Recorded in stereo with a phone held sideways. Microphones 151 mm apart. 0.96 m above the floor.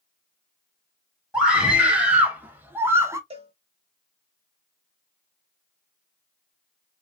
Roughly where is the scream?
Centre.